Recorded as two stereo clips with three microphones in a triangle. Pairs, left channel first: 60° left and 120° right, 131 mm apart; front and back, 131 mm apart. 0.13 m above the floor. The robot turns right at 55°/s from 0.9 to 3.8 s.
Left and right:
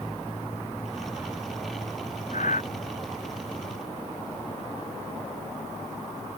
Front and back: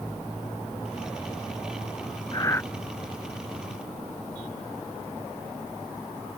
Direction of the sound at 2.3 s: 55° left.